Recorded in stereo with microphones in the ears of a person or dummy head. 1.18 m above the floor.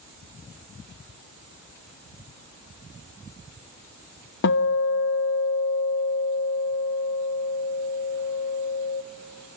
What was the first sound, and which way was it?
A guitar, 70° left (ahead or behind).